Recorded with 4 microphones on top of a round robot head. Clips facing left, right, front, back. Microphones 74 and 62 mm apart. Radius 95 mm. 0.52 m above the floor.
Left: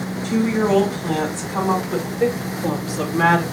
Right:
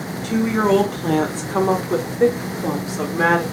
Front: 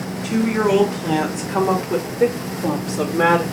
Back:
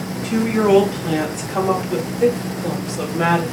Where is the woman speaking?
85° right, 2 m; by 3.4 s 10° right, 1.5 m.